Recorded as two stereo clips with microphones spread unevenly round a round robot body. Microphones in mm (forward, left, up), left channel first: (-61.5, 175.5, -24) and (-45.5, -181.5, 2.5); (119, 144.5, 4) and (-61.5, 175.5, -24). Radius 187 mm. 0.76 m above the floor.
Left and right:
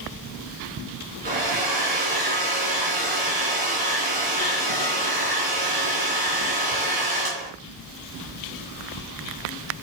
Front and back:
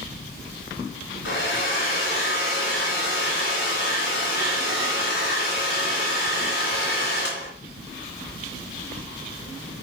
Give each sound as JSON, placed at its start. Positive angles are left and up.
{"t": 1.2, "sound": "a hair dryer", "azimuth_deg": -15, "distance_m": 3.5}